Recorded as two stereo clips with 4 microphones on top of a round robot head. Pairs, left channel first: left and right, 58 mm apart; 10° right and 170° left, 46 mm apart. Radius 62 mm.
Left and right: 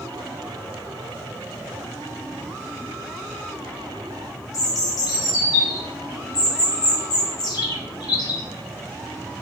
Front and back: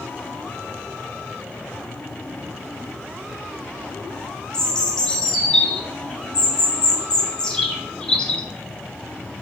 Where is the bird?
55° left, 1.5 m.